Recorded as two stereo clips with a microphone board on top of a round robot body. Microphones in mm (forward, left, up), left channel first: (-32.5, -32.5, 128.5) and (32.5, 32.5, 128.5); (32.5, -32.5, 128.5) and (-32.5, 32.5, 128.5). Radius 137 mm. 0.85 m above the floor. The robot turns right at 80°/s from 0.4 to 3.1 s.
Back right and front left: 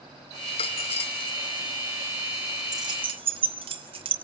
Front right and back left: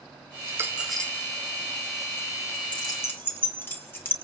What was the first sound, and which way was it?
A dropped coin, 170° right.